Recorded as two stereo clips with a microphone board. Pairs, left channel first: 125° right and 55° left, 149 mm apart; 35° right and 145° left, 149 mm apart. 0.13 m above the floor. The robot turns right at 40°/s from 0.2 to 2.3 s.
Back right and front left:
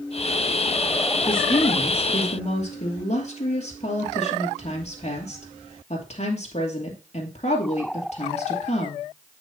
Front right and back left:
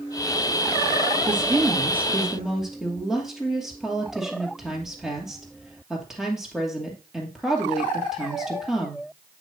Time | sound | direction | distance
1.3 | a woman speaking | 170° right | 2.5 m